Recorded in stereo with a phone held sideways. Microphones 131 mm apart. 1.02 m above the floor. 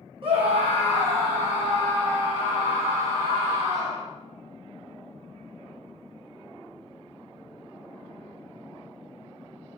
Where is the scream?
50° right (ahead or behind), 1.2 m; by 4.0 s 60° right (ahead or behind), 4 m.